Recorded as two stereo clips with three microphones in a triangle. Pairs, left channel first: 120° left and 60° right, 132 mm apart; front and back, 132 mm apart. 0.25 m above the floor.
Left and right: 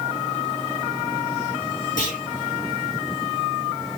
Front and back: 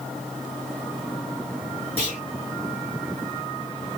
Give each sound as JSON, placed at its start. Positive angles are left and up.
{"t": 2.0, "sound": "a clunk", "azimuth_deg": 135, "distance_m": 6.0}